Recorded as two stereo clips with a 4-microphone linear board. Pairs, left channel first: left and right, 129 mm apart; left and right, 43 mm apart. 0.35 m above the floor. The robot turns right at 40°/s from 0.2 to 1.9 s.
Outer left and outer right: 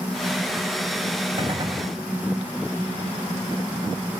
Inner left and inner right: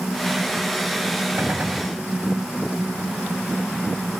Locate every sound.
1.4 s a gunshot: 45° right (ahead or behind); by 1.9 s 30° right (ahead or behind)